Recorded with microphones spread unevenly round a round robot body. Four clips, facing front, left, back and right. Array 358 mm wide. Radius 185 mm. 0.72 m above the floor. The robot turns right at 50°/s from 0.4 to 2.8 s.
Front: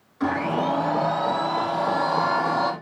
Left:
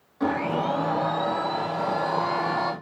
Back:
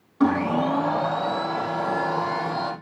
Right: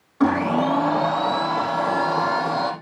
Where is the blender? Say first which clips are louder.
Right 6 dB, back 3 dB; 140° right, 4.5 m; by 2.7 s 20° right, 4.5 m.